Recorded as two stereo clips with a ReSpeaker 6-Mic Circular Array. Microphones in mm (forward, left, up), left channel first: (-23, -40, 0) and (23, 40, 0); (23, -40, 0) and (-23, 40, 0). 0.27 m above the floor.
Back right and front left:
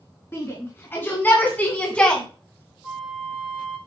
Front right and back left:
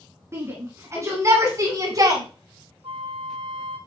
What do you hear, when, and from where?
0.3 s a shout: straight behind, 3 m; by 2.2 s 160° left, 1.9 m
2.8 s a flute: 145° left, 1.8 m